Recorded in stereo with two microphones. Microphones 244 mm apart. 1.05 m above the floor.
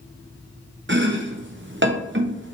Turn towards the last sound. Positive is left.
turn(degrees=-55)  # may be behind; listen again after turning